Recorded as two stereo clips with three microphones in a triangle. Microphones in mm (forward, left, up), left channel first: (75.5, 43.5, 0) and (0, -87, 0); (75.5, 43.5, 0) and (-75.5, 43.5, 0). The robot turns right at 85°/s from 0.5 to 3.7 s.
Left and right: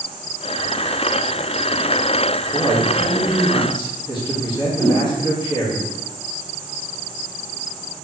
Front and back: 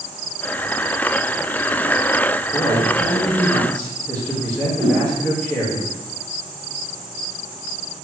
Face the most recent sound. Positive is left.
turn(degrees=125)